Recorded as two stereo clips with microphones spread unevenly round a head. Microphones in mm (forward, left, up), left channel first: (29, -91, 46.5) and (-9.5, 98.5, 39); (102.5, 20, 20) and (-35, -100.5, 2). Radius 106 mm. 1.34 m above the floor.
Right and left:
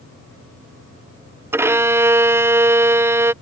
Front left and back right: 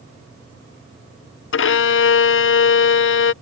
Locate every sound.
1.5 s a violin: 25° left